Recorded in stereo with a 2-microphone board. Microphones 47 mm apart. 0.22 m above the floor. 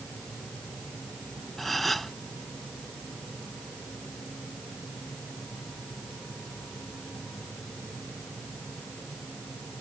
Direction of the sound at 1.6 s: Centre (ahead or behind).